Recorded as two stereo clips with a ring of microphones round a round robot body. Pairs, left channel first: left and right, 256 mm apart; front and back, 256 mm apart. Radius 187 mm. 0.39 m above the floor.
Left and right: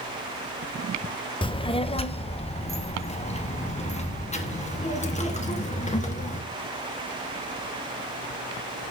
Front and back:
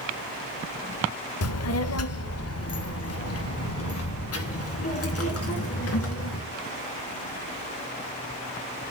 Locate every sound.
1.4 s a child speaking: 20° left, 0.9 m; by 6.4 s 25° left, 3.5 m